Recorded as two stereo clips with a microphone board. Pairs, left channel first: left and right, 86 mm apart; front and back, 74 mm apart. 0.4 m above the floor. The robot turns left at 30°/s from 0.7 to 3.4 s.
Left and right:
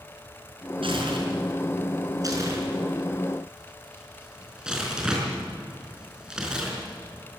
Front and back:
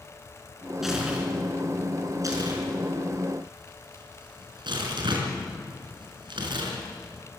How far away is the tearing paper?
About 5 m.